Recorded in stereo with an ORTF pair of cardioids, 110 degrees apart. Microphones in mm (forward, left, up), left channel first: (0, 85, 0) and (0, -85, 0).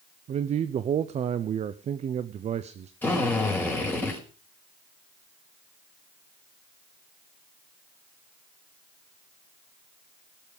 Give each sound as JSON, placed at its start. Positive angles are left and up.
{"t": 0.3, "sound": "a man speaking", "azimuth_deg": -45, "distance_m": 0.8}
{"t": 3.0, "sound": "a drill", "azimuth_deg": 10, "distance_m": 5.5}